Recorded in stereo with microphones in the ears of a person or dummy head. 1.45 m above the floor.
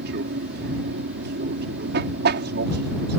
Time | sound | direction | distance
0.0 | an aircraft | 50° right (ahead or behind) | ?